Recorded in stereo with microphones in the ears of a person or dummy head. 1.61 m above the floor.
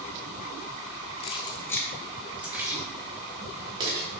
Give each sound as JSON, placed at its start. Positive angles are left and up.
{"t": 1.2, "sound": "keys jangling", "side_deg": 30, "distance_m": 1.1}